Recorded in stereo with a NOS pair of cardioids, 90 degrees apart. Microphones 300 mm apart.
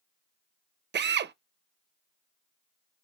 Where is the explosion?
No explosion in this recording.